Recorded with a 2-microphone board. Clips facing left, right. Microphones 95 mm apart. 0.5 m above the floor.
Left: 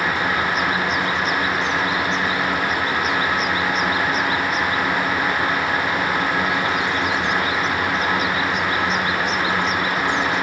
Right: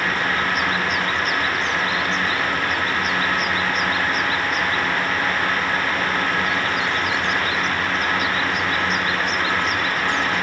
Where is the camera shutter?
No camera shutter in this recording.